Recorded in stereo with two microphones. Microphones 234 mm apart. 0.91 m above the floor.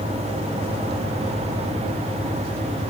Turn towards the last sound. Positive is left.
No sound to turn to.